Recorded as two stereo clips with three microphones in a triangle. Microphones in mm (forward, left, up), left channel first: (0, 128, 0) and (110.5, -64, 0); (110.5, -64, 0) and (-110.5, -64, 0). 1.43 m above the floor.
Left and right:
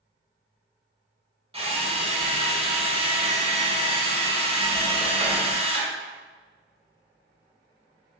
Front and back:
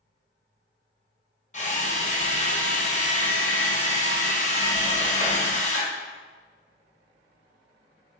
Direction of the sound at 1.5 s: 20° right.